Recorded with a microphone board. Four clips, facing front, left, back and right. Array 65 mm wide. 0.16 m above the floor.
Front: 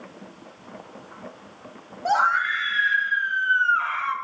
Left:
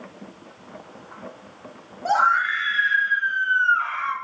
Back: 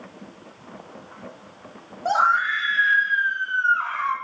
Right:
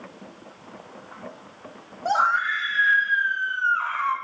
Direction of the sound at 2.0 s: 35° left.